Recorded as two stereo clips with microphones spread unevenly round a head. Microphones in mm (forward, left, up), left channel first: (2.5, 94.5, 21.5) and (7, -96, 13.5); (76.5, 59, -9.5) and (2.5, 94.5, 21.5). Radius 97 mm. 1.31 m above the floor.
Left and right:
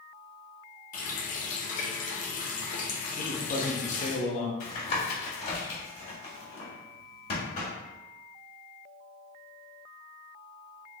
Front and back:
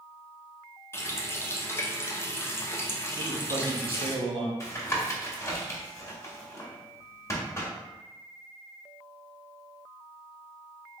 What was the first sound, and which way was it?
A running tap, 40° left.